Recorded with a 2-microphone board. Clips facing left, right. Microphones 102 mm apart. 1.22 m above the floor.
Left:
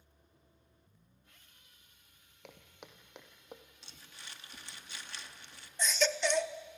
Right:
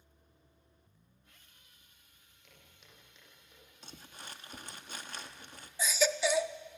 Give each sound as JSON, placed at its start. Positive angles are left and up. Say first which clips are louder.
{"t": 2.4, "sound": "footsteps", "louder": "left 9 dB", "side_deg": 65, "distance_m": 3.0}
{"t": 3.8, "sound": "crumpling", "louder": "right 5 dB", "side_deg": -45, "distance_m": 1.3}
{"t": 5.8, "sound": "a baby crying", "louder": "right 1 dB", "side_deg": -5, "distance_m": 0.7}